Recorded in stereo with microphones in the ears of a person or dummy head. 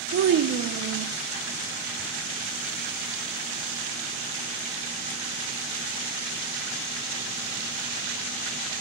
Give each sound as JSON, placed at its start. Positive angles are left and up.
{"t": 0.1, "sound": "a child speaking", "side_deg": -40, "distance_m": 0.5}